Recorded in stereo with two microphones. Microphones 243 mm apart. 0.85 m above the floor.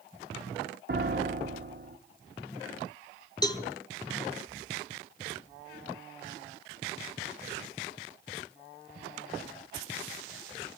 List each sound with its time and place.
0.9 s a piano: 50° right (ahead or behind), 0.9 m
3.4 s a cowbell: 15° left (ahead or behind), 1.3 m